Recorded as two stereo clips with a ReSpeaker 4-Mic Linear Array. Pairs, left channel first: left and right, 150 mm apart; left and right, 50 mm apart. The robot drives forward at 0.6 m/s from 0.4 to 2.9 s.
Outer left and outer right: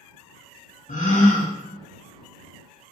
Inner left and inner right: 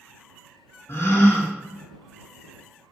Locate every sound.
0.9 s a gasp: 65° left (ahead or behind), 0.6 m; by 1.5 s 45° left (ahead or behind), 0.7 m